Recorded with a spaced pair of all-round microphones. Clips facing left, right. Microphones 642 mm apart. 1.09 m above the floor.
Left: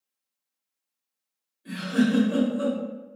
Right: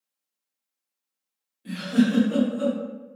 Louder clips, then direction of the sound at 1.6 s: Right 2 dB; 60° right (ahead or behind).